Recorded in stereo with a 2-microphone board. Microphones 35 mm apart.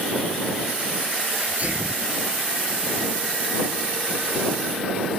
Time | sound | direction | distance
1.3 | a sneeze | 45° right (ahead or behind) | ?